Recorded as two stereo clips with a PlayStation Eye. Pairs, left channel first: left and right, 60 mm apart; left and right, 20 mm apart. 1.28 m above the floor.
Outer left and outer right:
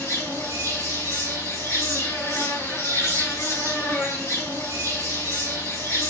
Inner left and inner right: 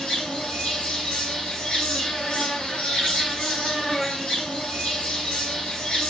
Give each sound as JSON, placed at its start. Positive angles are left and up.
{"t": 0.0, "sound": "an insect", "side_deg": 65, "distance_m": 3.0}